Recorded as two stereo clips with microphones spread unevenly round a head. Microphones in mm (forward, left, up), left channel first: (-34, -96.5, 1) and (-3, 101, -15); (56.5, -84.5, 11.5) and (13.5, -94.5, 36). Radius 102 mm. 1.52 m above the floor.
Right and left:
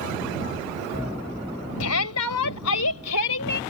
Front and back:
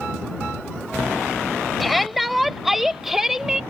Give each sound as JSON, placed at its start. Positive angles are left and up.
{"t": 1.8, "sound": "a shout", "azimuth_deg": -85}